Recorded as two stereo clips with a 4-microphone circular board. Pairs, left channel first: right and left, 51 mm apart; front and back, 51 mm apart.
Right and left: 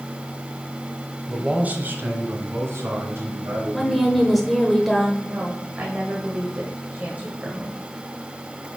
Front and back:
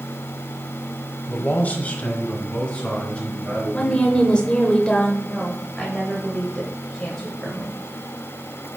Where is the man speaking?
20° left, 1.0 m; by 4.4 s 70° left, 5 m.